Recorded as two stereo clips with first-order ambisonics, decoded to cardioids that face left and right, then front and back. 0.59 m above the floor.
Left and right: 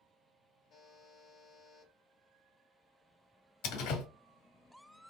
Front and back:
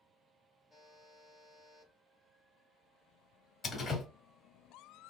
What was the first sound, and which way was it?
A buzzer, 90° left.